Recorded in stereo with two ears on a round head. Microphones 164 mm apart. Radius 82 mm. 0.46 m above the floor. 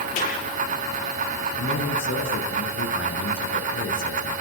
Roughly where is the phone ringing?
I don't hear a phone ringing.